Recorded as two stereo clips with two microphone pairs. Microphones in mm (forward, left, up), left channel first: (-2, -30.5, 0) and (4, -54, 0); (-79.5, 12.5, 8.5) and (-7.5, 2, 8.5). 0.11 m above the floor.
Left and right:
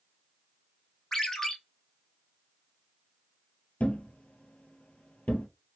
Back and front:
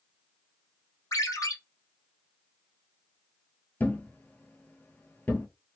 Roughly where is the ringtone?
Behind.